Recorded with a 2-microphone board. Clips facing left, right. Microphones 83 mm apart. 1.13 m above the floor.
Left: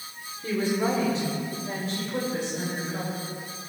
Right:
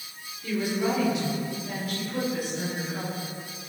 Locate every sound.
0.4 s a woman speaking: 40° left (ahead or behind), 4 m; by 3.1 s 30° left (ahead or behind), 6 m